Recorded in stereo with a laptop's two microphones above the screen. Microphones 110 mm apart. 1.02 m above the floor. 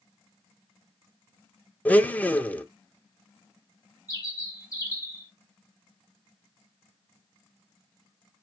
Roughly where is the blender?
Centre.